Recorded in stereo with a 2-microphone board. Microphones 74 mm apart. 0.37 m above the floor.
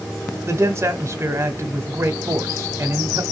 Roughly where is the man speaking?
Right.